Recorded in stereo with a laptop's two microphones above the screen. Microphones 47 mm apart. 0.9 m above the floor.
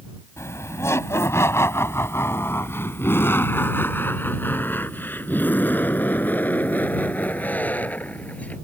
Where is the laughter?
85° left; by 8.6 s 35° left (ahead or behind).